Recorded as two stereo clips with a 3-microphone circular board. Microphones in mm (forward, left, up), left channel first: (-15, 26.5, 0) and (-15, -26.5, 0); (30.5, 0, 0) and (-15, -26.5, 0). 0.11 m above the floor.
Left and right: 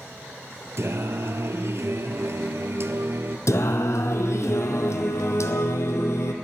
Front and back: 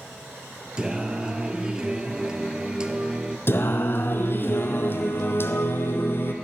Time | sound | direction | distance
0.8 | singing | 80° right | 0.7 m
3.5 | singing | 70° left | 0.9 m